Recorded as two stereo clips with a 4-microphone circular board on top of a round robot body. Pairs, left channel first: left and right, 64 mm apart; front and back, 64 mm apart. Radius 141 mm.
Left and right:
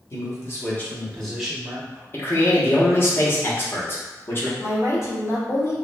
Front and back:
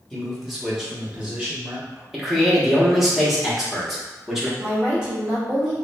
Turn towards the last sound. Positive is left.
turn(degrees=105)